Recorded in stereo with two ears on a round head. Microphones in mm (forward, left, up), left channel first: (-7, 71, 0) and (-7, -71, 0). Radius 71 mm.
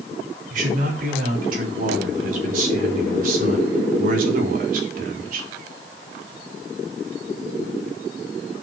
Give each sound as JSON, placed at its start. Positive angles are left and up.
{"t": 0.5, "sound": "a man speaking", "side_deg": -60, "distance_m": 6.0}